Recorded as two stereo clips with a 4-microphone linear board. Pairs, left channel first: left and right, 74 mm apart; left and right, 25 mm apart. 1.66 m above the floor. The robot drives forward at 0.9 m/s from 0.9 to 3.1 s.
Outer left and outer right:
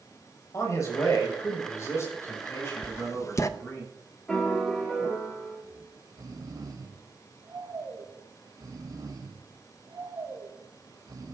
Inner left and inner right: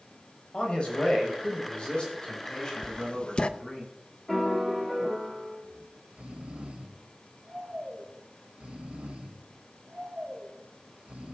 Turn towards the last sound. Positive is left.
turn(degrees=-65)  # may be behind; listen again after turning